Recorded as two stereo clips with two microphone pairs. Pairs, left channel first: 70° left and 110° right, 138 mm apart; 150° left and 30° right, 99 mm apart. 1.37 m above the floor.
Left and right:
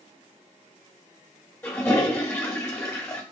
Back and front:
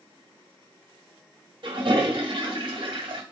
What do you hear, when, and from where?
1.6 s a toilet flushing: 5° right, 2 m